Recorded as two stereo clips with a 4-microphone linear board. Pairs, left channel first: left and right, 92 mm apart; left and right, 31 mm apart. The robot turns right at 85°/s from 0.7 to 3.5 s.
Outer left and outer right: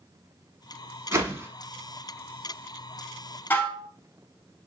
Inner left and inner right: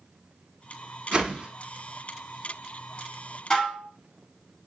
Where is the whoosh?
25° right (ahead or behind), 0.8 m.